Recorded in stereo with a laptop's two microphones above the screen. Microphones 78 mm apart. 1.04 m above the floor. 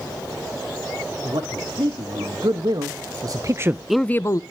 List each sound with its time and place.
1.2 s a man speaking: 70° right (ahead or behind), 2.5 m; by 4.4 s 45° left (ahead or behind), 0.6 m